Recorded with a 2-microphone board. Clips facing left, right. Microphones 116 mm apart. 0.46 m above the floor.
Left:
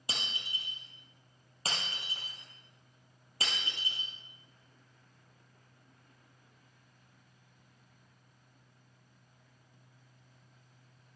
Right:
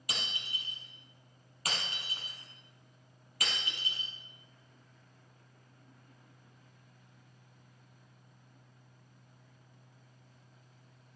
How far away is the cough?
No cough in this recording.